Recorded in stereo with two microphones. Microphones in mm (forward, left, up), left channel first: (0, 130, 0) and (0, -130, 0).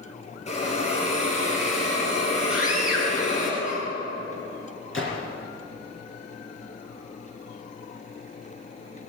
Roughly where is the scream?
Centre.